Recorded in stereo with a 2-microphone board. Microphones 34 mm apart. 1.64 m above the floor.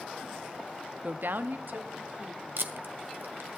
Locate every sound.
1.0 s a woman speaking: 40° right (ahead or behind), 0.6 m; by 2.5 s 50° right (ahead or behind), 2 m
2.6 s tape being pulled: 80° right, 1.3 m